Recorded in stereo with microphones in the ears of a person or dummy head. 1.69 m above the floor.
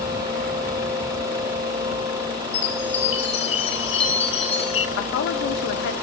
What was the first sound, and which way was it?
A chime, 30° left (ahead or behind).